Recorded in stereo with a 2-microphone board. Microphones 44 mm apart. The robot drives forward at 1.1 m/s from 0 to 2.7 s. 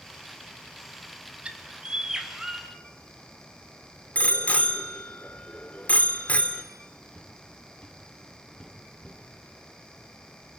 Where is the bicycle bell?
35° left (ahead or behind), 2 m.